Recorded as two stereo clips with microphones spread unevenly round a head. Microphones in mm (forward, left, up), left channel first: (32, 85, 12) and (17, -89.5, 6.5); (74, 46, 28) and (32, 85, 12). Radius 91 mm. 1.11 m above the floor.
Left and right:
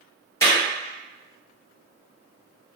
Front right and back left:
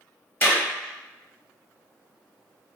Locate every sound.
0.4 s a clap: 10° left, 2.0 m